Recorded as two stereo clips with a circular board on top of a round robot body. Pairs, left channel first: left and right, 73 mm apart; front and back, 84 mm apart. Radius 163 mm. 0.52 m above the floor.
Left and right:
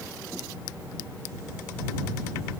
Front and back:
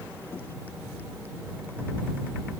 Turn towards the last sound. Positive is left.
No sound to turn to.